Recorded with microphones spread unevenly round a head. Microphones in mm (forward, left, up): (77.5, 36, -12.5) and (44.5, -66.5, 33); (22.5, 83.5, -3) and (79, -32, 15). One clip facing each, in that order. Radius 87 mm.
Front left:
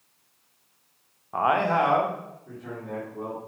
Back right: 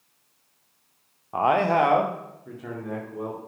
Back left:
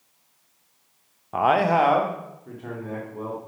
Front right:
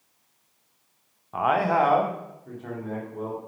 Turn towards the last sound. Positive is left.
turn(degrees=-155)